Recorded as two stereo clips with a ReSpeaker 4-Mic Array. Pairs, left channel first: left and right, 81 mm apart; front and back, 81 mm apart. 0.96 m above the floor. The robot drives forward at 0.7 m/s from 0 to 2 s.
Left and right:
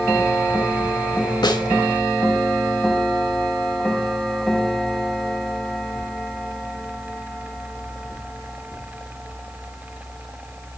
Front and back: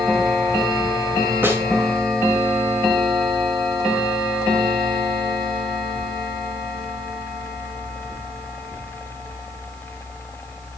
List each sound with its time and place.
1.4 s a snare drum: 115° left, 2.0 m; by 1.7 s 120° left, 2 m